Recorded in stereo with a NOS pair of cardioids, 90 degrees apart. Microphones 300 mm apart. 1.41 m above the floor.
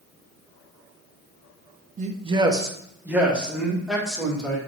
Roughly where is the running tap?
No running tap in this recording.